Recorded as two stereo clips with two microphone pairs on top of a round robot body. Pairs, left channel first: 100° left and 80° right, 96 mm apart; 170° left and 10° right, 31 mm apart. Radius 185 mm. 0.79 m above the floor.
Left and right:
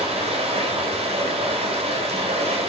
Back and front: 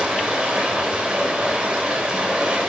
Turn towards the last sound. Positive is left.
turn(degrees=-75)